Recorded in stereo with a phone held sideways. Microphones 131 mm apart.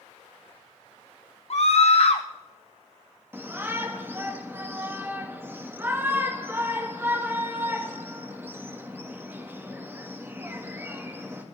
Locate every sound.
1.5 s a scream: 55° left (ahead or behind), 0.7 m
3.3 s a shout: 15° right (ahead or behind), 1.9 m